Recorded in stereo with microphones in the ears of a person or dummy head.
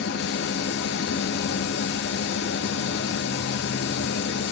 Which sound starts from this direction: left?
A machine running, at 0.0 s.